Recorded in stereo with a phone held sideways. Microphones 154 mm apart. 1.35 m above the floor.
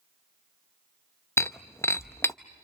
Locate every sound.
1.4 s breaking glass: 15° left (ahead or behind), 0.7 m